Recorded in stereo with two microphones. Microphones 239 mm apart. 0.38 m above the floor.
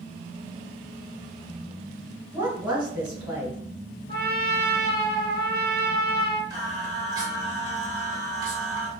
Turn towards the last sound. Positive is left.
turn(degrees=-15)  # may be behind; listen again after turning